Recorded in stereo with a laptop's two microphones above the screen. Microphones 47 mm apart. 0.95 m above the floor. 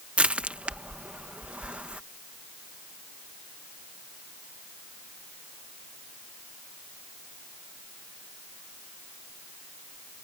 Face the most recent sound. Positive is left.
turn(degrees=-25)  # may be behind; listen again after turning